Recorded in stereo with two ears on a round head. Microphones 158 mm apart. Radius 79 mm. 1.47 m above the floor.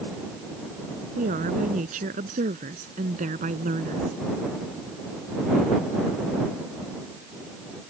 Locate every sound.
1.2 s a woman speaking: 45° right (ahead or behind)